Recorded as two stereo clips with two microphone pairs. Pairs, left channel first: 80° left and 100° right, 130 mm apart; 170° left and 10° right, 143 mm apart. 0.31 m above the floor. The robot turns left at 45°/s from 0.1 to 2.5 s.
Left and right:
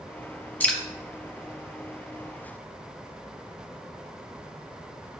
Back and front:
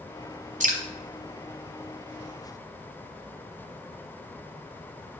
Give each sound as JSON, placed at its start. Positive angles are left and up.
{"t": 0.6, "sound": "dripping", "azimuth_deg": 5, "distance_m": 1.0}